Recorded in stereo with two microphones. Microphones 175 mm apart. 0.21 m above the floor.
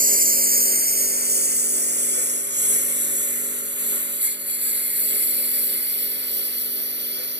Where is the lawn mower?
50° right (ahead or behind); by 7.4 s 75° right (ahead or behind).